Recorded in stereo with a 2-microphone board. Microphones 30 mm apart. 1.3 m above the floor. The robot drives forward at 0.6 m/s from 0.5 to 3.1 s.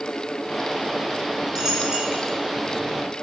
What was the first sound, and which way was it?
A dropped coin, 25° right (ahead or behind).